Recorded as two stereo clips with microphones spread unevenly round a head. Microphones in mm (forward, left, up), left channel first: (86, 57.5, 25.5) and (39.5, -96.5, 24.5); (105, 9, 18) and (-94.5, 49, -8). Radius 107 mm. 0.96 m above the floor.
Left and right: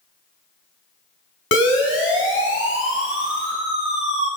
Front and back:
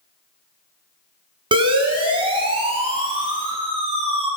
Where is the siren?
100° left, 6.5 m; by 4.3 s 105° left, 10.5 m.